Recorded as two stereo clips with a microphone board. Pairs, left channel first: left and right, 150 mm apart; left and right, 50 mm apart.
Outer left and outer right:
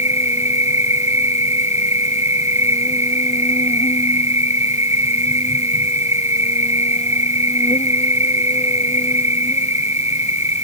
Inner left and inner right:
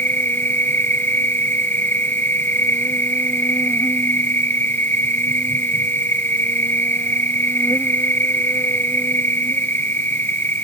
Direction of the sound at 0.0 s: 45° left (ahead or behind).